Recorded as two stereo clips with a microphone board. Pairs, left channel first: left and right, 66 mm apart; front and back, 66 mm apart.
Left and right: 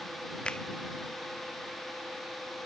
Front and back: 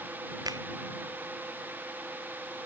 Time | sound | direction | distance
0.5 | a finger snap | 165° left | ?